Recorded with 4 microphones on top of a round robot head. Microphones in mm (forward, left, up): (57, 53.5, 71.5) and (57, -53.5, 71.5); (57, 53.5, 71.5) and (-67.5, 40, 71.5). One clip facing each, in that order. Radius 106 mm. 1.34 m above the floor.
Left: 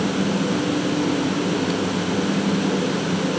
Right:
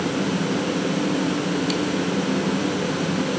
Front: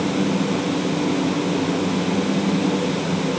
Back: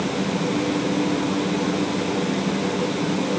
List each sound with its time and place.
Only background noise.